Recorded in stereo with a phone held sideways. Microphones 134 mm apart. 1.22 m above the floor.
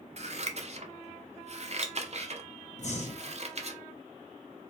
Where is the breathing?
55° left (ahead or behind), 0.7 m.